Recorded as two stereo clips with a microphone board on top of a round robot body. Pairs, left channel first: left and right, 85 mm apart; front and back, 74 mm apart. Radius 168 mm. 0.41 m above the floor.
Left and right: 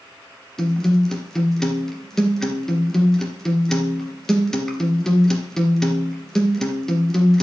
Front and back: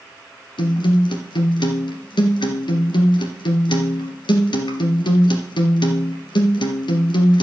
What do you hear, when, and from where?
0.6 s a guitar: 5° left, 2.5 m